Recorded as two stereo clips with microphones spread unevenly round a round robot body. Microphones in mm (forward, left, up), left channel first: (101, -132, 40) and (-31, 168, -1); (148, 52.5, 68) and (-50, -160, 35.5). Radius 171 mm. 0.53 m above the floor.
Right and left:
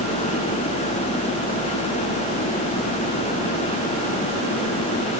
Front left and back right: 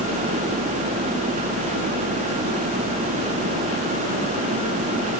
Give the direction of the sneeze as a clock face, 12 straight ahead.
I don't hear a sneeze.